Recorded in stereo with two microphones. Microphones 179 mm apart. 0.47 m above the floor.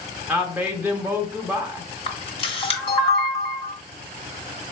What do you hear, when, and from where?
0.3 s a woman speaking: 10° right (ahead or behind), 0.8 m
2.1 s a camera shutter: 30° left (ahead or behind), 0.9 m